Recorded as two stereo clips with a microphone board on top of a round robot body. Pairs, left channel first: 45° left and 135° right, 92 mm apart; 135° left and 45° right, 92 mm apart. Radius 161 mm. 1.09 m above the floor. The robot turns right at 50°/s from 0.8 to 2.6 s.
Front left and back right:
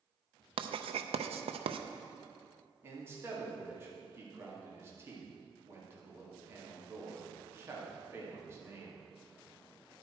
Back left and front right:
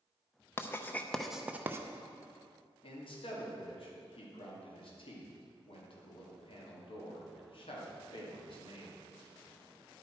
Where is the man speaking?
160° left, 2 m.